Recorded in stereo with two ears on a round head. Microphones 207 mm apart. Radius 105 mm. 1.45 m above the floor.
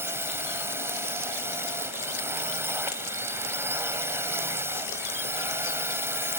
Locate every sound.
0.0 s a drone: 10° right (ahead or behind)